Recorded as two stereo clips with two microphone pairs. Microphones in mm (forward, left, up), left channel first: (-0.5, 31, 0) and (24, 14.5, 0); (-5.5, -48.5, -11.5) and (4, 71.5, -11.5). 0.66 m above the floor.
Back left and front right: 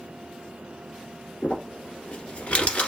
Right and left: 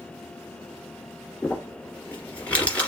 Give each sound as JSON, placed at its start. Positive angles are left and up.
{"t": 1.4, "sound": "crumpling", "azimuth_deg": -175, "distance_m": 1.7}